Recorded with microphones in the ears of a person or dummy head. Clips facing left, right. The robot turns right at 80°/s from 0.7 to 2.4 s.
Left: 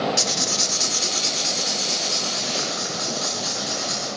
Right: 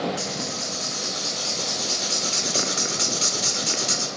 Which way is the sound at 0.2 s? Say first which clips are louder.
Left 3 dB; 95° left.